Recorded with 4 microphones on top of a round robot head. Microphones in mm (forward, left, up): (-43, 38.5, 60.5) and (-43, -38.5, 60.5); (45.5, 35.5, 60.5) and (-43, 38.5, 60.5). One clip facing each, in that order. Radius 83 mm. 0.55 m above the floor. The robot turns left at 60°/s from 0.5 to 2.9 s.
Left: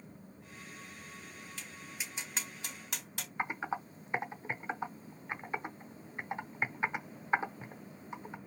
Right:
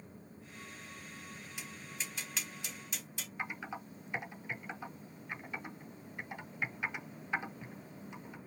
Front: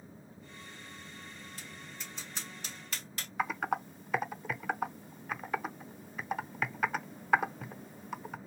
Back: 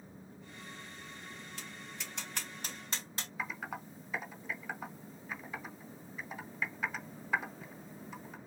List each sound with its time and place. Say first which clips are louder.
1.6 s tapping: right 1 dB, back 1 dB; 165° right, 3 m; by 3.3 s 115° left, 3 m
3.4 s typing on a keyboard: left 6 dB, front 9 dB; 30° left, 0.7 m